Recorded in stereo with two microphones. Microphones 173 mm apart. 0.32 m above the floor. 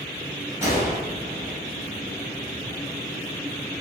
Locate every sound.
0.6 s a gunshot: 15° right (ahead or behind), 1.2 m